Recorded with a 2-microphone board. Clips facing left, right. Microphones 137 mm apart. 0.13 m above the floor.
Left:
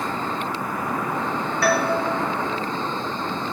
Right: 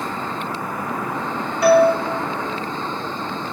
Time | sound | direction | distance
1.6 | a doorbell | 20° right (ahead or behind) | 3 m